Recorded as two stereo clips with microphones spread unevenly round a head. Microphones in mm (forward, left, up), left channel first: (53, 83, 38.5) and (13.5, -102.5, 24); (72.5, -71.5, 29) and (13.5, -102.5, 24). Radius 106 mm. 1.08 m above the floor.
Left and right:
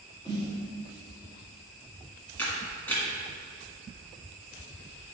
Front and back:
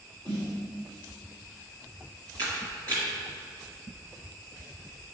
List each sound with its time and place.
0.2 s a snare drum: 150° left, 3 m
2.4 s a camera shutter: 155° left, 1.6 m